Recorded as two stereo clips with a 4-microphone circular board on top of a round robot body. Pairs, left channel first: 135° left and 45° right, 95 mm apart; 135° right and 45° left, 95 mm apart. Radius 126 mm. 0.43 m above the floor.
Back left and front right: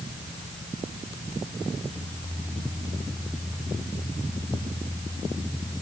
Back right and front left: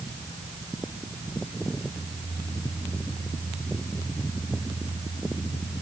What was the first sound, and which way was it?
Only background noise.